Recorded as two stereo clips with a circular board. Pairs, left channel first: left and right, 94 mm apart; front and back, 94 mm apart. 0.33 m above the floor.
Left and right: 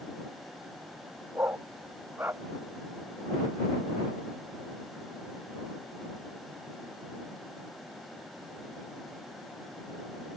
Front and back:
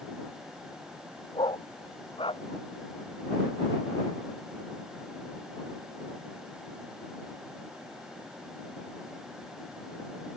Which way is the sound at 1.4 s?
25° right.